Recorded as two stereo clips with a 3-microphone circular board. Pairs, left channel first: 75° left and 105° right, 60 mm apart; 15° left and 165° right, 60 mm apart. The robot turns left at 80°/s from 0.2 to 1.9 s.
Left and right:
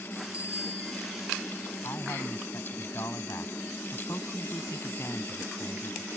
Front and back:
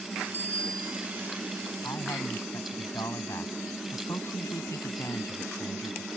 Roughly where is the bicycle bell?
Ahead right.